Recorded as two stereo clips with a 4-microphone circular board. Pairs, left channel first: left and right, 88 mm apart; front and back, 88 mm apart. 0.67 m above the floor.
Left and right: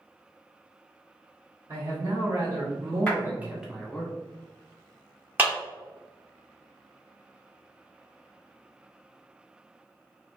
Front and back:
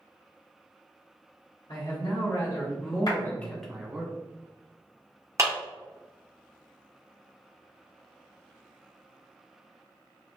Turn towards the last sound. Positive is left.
turn(degrees=-145)